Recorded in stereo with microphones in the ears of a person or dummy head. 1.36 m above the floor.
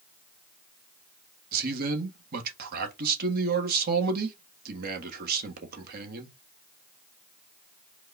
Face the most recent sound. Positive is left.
turn(degrees=-50)  # may be behind; listen again after turning